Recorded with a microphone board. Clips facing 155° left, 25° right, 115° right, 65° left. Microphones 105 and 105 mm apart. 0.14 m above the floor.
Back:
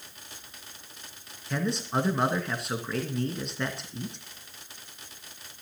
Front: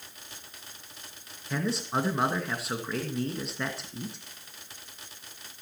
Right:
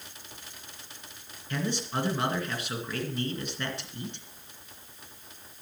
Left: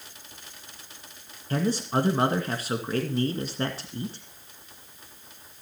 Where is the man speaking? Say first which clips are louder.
Back 1 dB, left 6 dB; 65° left, 2.0 m.